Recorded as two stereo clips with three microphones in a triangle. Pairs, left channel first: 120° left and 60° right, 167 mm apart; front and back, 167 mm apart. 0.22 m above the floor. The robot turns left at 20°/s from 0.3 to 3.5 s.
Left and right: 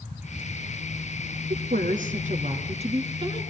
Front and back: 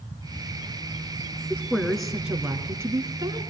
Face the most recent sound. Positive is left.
turn(degrees=-120)